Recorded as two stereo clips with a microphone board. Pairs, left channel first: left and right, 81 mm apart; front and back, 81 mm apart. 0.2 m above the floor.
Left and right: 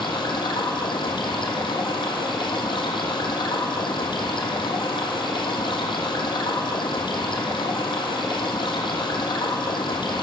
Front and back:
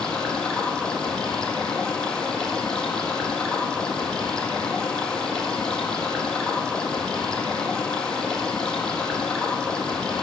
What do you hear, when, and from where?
0.0 s running water: 80° left, 1.4 m